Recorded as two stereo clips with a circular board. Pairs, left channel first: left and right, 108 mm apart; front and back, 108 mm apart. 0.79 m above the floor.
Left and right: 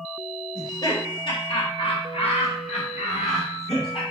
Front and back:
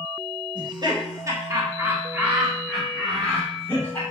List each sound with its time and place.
0.6 s laughter: 140° left, 2 m; by 4.0 s 65° left, 2.5 m